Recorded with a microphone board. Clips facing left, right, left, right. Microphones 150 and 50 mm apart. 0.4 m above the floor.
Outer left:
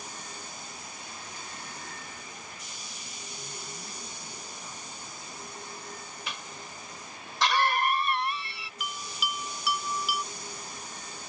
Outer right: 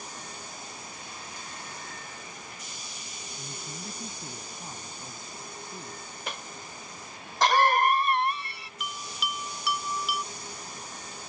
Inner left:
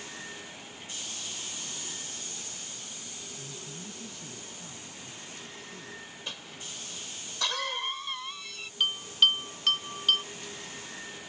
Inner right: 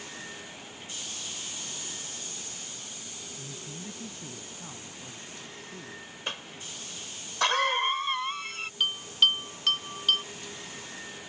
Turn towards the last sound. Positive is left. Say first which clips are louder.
# even, even
turn(degrees=0)  # may be behind; listen again after turning